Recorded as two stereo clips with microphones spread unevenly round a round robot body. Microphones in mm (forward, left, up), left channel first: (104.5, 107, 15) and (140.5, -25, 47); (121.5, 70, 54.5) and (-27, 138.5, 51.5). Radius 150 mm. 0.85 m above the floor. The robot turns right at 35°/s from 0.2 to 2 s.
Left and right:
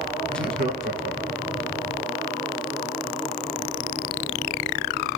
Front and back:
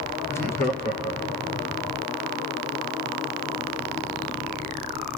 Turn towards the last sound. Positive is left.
turn(degrees=-45)